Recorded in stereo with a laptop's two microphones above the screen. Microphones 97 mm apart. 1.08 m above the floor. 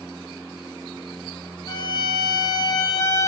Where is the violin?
40° left (ahead or behind), 1.3 m.